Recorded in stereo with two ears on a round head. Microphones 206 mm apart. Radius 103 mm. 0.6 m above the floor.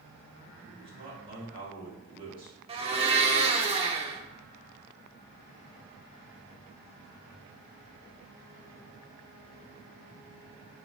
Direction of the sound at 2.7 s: 25° right (ahead or behind).